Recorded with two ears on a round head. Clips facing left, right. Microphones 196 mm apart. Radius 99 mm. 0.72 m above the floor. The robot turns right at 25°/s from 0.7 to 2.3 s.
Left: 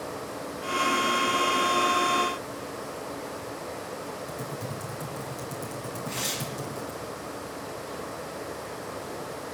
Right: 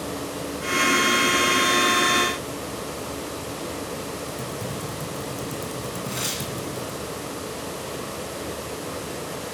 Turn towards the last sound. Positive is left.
turn(degrees=-15)  # may be behind; listen again after turning